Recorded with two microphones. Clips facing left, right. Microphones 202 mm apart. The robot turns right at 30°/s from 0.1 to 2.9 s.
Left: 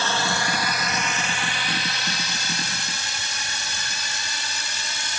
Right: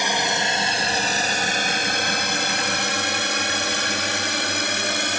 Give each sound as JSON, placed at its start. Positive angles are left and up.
{"t": 0.0, "sound": "a drone", "side_deg": -15}